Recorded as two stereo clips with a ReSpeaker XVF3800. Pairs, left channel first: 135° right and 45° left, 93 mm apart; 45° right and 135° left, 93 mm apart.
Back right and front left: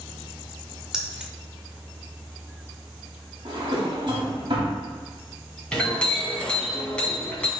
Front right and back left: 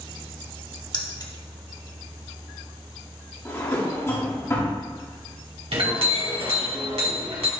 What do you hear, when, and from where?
0.9 s keys jangling: 35° right, 0.9 m
3.5 s a drawer: 15° left, 1.8 m
5.7 s a clink: 145° left, 2 m